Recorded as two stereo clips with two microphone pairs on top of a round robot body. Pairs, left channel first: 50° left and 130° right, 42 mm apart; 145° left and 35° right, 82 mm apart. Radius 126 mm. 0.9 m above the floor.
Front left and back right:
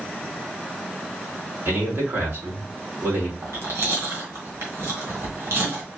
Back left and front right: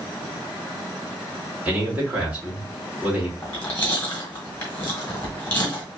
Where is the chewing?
145° right, 1.6 m.